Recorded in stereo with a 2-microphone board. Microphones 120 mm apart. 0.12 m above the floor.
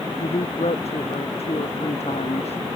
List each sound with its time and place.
0.2 s a man speaking: 65° left (ahead or behind)